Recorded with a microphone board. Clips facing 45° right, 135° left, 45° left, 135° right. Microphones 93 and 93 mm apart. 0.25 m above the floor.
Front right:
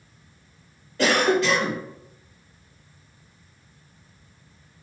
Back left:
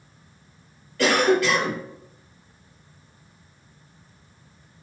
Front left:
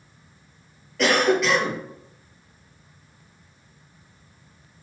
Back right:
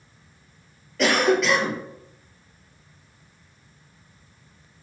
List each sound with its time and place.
1.0 s a cough: 45° right, 1.6 m